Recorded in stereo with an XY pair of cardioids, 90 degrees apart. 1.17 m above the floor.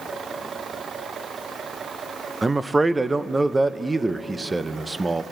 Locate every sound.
2.4 s a man speaking: 20° right, 0.5 m